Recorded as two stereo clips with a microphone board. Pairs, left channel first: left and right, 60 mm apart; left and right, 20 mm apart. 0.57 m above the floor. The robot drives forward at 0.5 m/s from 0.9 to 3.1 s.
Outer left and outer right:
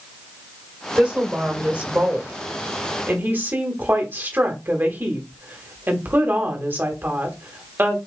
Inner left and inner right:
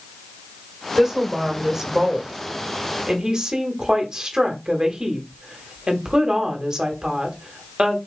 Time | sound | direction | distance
1.0 | a woman speaking | 20° right (ahead or behind) | 2 m